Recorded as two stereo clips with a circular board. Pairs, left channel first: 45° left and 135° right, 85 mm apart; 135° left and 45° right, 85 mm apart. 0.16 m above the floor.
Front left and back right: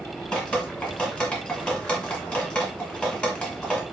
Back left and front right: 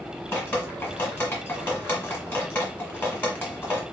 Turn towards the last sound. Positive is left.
turn(degrees=100)